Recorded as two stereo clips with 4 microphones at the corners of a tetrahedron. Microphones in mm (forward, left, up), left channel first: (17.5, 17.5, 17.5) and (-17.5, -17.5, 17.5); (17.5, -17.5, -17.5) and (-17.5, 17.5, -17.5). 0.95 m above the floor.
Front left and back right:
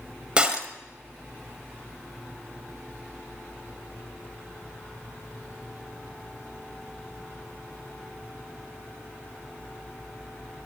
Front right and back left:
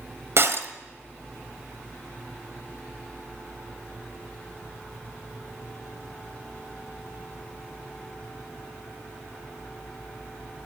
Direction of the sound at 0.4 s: 155° left.